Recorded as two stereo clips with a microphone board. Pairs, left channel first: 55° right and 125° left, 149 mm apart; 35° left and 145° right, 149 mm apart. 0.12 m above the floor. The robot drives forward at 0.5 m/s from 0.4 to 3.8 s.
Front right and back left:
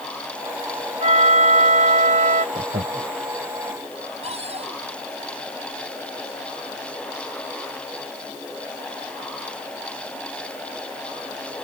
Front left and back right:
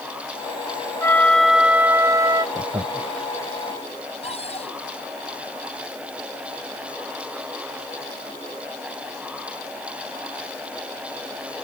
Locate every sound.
1.0 s a flute: 100° left; by 2.5 s 150° left
2.5 s laughter: 150° left
4.2 s a cupboard door: 80° left